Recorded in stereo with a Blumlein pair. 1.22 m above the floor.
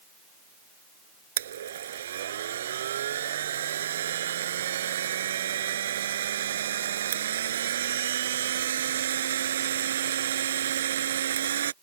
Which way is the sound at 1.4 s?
60° right.